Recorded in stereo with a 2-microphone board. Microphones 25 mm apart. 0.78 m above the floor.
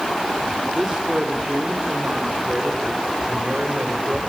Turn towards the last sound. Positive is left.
turn(degrees=-35)  # may be behind; listen again after turning